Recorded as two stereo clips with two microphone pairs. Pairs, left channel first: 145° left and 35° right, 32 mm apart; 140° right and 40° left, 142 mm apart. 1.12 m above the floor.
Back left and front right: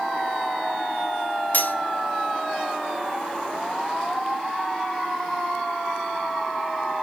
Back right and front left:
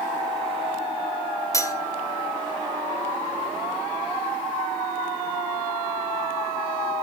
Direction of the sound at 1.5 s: 155° left.